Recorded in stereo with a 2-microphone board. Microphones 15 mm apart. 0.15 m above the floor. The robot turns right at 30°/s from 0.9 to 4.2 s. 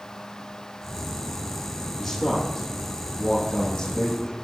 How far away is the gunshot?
No gunshot in this recording.